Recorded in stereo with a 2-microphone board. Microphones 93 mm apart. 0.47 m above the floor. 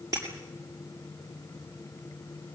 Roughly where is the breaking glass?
Right.